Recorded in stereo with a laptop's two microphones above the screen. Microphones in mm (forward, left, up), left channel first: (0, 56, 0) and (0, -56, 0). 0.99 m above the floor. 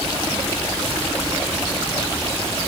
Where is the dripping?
No dripping in this recording.